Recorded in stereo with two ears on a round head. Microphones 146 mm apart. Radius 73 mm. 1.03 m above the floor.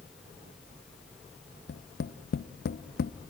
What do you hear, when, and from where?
1.7 s tapping: 65° left (ahead or behind), 0.5 m